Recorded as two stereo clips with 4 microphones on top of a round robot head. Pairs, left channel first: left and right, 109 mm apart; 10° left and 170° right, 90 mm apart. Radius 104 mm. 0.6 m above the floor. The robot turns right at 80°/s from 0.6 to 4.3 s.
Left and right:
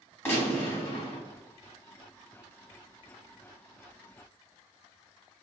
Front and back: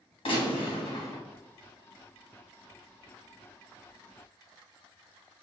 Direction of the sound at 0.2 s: 20° left.